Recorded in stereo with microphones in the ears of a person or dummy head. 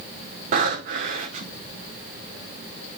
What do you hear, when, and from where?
0.5 s breathing: 50° right (ahead or behind), 2 m